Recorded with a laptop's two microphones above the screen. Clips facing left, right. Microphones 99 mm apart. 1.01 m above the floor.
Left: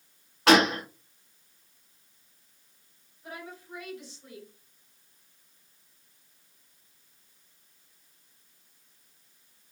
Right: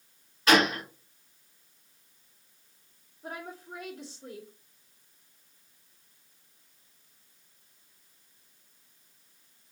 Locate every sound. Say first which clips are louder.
0.5 s a gunshot: left 3 dB; 75° left (ahead or behind), 1.4 m
3.2 s a woman speaking: right 2 dB; 75° right (ahead or behind), 1.5 m